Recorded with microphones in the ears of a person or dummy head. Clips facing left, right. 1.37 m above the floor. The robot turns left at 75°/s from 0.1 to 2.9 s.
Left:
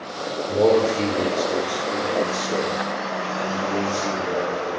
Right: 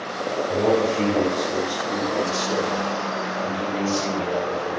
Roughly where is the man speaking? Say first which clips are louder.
Left 3 dB; left.